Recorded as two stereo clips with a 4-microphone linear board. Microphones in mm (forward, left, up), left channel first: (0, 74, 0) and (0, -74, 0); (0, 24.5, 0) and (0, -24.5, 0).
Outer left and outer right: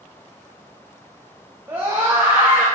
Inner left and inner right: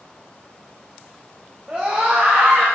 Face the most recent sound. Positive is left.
turn(degrees=-15)  # may be behind; listen again after turning